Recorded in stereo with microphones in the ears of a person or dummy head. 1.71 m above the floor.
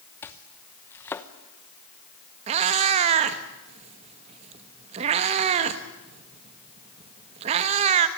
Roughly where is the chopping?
Centre.